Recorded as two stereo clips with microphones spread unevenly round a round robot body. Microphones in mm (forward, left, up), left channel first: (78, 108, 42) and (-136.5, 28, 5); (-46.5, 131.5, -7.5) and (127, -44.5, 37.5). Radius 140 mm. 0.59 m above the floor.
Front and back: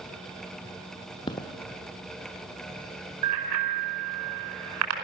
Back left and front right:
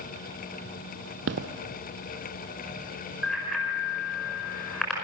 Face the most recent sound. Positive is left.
turn(degrees=-135)